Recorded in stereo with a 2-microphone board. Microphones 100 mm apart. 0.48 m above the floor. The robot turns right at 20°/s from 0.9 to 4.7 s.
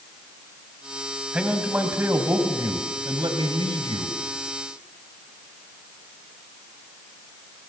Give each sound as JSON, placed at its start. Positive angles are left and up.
{"t": 1.3, "sound": "a man speaking", "azimuth_deg": -170, "distance_m": 2.5}